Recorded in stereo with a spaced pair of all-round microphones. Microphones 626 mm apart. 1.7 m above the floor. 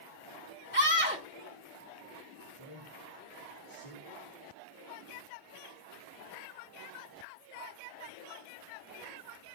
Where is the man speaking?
55° left (ahead or behind), 3 m.